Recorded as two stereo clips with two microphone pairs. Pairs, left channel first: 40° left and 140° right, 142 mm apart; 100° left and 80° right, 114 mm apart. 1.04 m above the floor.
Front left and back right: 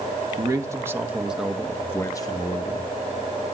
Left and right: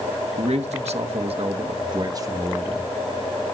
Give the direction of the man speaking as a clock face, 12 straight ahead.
3 o'clock.